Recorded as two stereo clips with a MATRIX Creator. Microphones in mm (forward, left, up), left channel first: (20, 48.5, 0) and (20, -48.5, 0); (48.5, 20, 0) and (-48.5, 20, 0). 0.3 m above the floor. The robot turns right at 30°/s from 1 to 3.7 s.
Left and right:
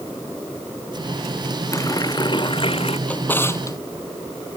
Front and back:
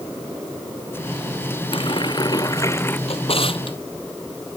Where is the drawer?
10° left; by 3.8 s 30° left.